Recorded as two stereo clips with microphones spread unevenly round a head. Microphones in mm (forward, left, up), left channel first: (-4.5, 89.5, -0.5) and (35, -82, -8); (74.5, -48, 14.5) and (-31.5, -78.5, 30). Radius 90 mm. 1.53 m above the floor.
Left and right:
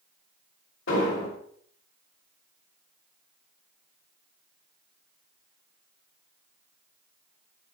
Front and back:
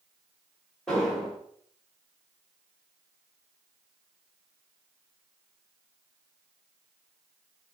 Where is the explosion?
105° left, 2 m.